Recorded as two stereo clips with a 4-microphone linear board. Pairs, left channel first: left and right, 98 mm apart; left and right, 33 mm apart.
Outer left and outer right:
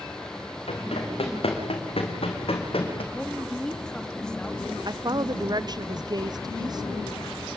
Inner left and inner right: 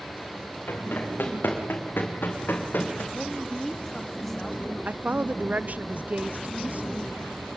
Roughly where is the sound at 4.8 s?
Right.